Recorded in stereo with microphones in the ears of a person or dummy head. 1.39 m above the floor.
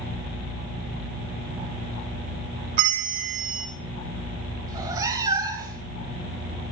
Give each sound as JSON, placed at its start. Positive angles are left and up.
{"t": 2.8, "sound": "a bell", "side_deg": -45, "distance_m": 1.2}
{"t": 4.7, "sound": "a cat meowing", "side_deg": -20, "distance_m": 2.0}